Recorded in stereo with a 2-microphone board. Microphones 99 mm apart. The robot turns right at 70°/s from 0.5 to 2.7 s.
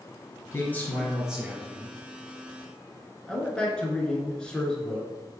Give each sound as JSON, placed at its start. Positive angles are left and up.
{"t": 0.5, "sound": "a man speaking", "azimuth_deg": 135, "distance_m": 1.8}
{"t": 3.3, "sound": "a man speaking", "side_deg": 10, "distance_m": 1.2}